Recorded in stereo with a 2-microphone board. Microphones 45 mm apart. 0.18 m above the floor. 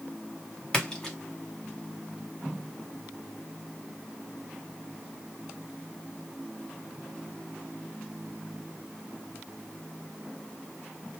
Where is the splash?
15° left (ahead or behind), 1.2 m.